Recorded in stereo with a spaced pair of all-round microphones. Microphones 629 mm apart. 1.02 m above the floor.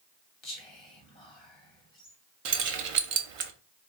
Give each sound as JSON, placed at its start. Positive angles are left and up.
{"t": 0.4, "sound": "whispering", "side_deg": 45, "distance_m": 1.5}
{"t": 2.5, "sound": "keys jangling", "side_deg": -60, "distance_m": 0.5}